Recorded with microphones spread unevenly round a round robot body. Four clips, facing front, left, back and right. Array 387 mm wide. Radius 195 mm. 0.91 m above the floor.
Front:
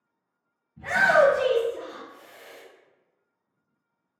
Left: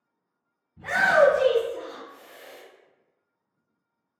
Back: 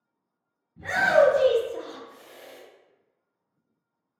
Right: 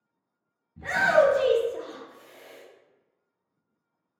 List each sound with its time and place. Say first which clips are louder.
0.8 s a shout: left 1 dB, even; 100° right, 1.0 m; by 2.6 s 150° left, 0.6 m